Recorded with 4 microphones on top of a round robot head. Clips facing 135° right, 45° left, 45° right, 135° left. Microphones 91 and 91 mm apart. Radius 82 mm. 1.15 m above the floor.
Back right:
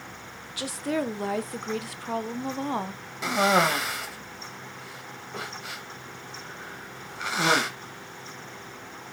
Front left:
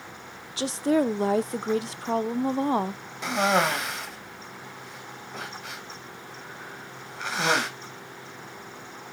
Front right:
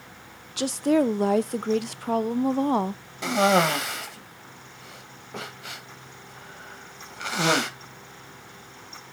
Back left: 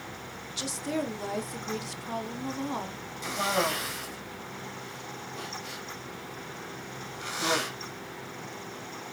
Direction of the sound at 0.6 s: 15° right.